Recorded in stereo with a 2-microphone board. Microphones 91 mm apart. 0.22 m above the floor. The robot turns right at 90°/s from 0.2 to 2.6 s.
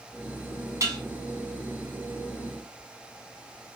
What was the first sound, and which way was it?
Dishes clattering, 35° right (ahead or behind).